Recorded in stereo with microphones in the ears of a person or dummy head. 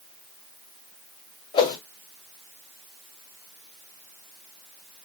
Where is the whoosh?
30° left (ahead or behind), 1.9 m.